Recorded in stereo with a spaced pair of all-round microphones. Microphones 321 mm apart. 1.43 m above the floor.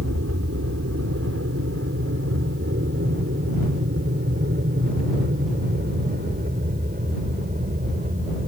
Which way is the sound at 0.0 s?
50° right (ahead or behind).